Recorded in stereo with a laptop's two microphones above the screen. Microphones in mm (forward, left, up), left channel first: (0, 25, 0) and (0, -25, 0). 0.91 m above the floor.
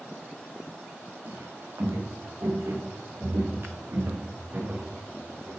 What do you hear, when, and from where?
1.2 s footsteps: 75° right (ahead or behind), 5.5 m; by 5.6 s 35° right (ahead or behind), 5 m